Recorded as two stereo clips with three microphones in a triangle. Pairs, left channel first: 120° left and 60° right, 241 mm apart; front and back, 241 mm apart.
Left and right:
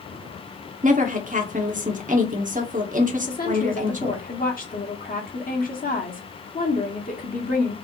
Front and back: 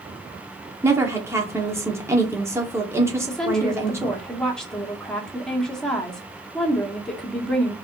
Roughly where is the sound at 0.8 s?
Right.